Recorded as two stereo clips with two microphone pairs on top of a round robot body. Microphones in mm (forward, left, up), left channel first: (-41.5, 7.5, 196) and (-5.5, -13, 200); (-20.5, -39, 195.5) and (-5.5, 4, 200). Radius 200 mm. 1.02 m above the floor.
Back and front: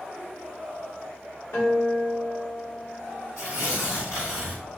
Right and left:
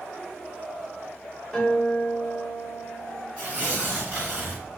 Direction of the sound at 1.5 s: 175° left.